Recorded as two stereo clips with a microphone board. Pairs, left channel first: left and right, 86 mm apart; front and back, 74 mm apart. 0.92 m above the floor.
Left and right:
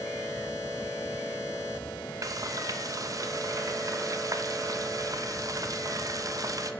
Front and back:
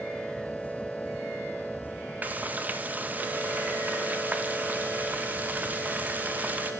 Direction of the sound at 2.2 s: 120° right.